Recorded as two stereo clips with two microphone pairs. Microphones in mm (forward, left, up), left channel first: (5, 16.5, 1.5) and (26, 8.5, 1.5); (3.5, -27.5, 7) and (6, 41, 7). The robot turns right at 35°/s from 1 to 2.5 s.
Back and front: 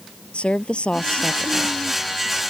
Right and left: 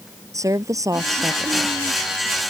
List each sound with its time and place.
0.3 s a woman speaking: 125° left; by 1.8 s 150° left